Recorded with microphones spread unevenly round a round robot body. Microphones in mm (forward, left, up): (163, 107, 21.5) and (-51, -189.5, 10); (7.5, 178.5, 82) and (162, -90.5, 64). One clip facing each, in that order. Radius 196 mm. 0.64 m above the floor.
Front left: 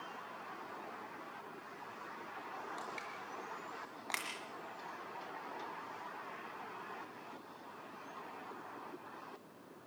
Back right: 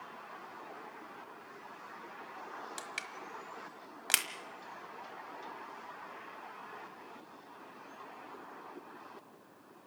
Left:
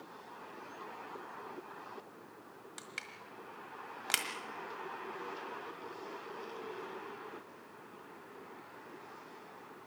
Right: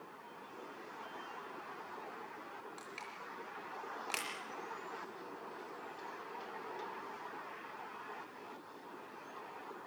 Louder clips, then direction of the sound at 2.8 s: Even, right 1 dB; 170° right.